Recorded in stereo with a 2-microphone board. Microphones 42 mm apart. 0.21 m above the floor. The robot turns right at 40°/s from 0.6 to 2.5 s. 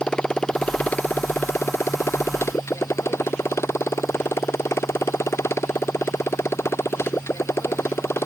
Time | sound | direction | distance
0.0 | a motorcycle | 20° left | ?